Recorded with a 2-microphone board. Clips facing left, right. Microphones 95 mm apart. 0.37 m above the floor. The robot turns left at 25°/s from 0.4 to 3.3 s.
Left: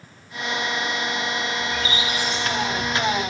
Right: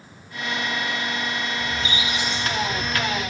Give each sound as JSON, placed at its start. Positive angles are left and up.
{"t": 1.6, "sound": "a squeak", "azimuth_deg": -145, "distance_m": 7.0}